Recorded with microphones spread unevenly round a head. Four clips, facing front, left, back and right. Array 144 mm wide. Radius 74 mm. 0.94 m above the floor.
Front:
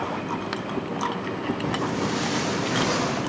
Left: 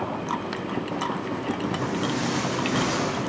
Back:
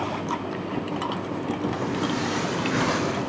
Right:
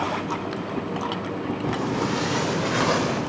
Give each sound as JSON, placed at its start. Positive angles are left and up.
{"t": 1.6, "sound": "footsteps", "azimuth_deg": -70, "distance_m": 6.0}